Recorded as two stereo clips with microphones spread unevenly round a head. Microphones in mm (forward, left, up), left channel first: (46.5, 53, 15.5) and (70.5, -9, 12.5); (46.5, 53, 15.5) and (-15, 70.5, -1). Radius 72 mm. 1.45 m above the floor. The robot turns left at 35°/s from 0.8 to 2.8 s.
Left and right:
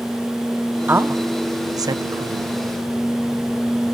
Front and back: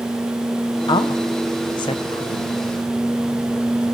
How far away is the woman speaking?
About 1.1 m.